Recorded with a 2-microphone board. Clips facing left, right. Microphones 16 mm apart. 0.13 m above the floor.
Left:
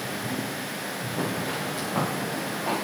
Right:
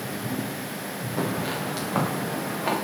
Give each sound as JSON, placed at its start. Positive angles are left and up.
{"t": 1.2, "sound": "footsteps", "side_deg": -85, "distance_m": 9.5}